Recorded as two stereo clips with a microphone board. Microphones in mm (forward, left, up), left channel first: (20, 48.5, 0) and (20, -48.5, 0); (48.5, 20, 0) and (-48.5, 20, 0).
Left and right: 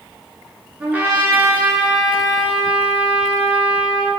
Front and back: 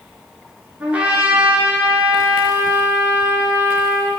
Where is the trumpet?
130° right, 0.9 m.